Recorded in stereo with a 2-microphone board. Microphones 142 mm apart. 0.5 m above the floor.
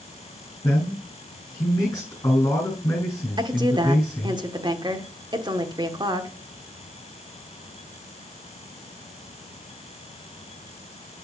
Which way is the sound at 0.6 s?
25° left (ahead or behind).